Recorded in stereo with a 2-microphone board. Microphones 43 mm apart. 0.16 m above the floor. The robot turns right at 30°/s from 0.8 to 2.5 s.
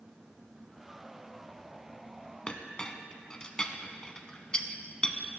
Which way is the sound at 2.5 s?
20° left (ahead or behind).